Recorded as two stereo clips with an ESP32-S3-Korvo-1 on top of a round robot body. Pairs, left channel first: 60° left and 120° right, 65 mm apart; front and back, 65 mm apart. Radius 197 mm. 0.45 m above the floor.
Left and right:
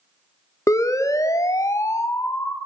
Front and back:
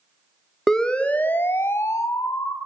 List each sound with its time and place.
0.7 s a siren: 80° left, 2.5 m; by 2.5 s 15° left, 3 m